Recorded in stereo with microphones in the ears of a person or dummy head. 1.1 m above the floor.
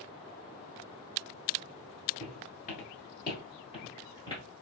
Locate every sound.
2.2 s footsteps: 35° left (ahead or behind), 1.3 m; by 4.4 s 25° left (ahead or behind), 1.7 m